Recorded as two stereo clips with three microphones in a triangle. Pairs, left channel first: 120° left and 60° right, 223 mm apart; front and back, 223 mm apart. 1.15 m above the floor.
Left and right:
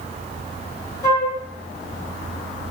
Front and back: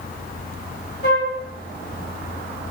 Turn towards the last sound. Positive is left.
turn(degrees=45)